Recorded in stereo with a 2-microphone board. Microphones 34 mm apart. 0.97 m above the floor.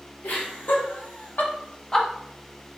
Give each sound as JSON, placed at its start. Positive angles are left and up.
{"t": 0.2, "sound": "laughter", "side_deg": 75, "distance_m": 2.5}